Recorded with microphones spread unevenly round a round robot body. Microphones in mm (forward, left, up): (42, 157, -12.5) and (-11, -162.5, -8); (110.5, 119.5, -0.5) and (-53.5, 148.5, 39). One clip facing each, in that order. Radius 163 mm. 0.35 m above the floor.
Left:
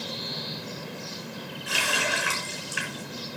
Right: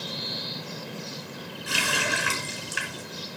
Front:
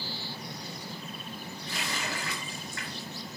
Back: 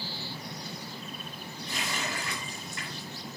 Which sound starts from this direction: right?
A running tap, at 1.7 s.